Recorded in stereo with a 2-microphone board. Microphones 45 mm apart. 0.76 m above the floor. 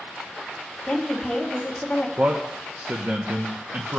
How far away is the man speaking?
About 1.1 m.